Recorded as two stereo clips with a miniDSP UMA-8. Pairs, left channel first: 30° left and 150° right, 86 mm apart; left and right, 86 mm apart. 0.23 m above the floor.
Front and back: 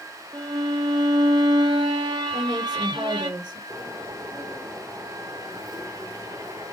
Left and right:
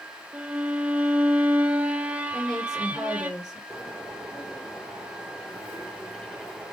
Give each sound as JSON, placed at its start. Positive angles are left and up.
{"t": 0.3, "sound": "a violin", "azimuth_deg": -160, "distance_m": 0.6}
{"t": 2.3, "sound": "a woman speaking", "azimuth_deg": -175, "distance_m": 4.5}
{"t": 3.7, "sound": "a bird", "azimuth_deg": 175, "distance_m": 4.0}